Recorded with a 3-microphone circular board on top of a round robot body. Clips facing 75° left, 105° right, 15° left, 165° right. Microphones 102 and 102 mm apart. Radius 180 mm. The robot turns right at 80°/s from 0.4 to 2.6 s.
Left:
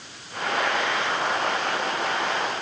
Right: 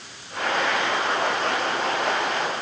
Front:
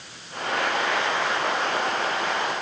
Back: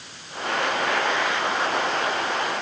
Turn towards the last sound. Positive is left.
No sound to turn to.